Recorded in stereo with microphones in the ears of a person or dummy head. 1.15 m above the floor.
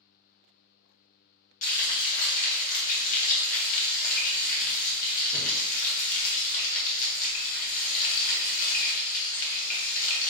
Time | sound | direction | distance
1.6 | frying | 45° left (ahead or behind) | 0.9 m